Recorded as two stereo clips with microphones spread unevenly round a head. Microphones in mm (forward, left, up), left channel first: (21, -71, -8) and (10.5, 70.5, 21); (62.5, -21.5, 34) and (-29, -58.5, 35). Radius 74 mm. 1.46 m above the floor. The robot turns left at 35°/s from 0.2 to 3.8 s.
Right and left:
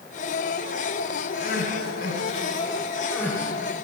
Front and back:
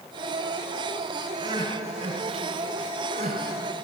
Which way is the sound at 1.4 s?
105° right.